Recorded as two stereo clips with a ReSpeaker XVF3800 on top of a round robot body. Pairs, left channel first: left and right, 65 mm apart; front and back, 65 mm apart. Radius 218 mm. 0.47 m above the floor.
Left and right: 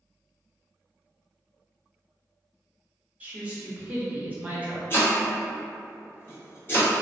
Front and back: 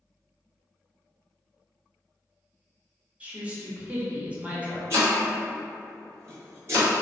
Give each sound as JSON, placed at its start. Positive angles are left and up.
{"t": 3.2, "sound": "a woman speaking", "azimuth_deg": -130, "distance_m": 1.2}
{"t": 4.9, "sound": "chopping", "azimuth_deg": 140, "distance_m": 1.5}